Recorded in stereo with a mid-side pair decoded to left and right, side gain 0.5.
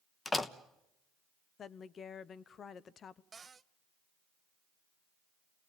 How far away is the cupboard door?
About 0.7 m.